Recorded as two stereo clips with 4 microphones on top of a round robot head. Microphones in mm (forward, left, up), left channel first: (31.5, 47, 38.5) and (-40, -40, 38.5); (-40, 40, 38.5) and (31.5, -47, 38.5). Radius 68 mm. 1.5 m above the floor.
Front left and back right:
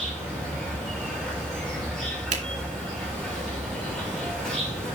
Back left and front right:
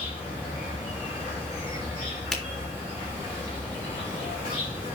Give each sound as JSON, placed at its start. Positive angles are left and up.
{"t": 0.0, "sound": "an insect", "azimuth_deg": 135, "distance_m": 4.5}
{"t": 2.3, "sound": "a finger snap", "azimuth_deg": -145, "distance_m": 2.5}